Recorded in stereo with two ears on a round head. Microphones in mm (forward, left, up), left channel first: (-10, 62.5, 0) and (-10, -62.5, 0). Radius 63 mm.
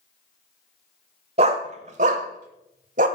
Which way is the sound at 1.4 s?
50° right (ahead or behind).